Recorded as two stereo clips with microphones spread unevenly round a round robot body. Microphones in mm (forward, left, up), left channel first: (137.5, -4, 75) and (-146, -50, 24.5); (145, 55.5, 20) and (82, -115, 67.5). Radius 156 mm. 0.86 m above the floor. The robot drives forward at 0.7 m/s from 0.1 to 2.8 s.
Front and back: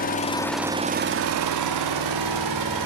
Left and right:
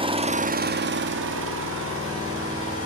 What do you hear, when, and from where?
0.0 s an engine running: 50° right, 0.7 m; by 2.9 s 160° right, 1.6 m